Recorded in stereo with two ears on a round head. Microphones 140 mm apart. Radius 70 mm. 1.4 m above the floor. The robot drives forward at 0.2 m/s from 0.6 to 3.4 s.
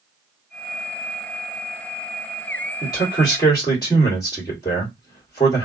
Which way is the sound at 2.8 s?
25° left (ahead or behind).